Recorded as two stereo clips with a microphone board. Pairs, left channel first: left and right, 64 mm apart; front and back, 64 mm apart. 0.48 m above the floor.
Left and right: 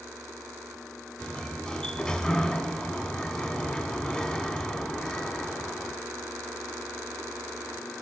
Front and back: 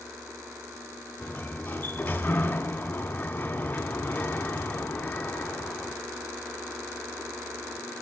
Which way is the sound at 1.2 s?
25° left.